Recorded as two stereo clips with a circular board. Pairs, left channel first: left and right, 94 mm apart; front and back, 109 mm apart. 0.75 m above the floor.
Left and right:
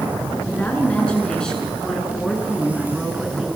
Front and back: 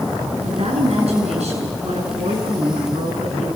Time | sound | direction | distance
0.4 | a woman speaking | 165° left | 8.5 m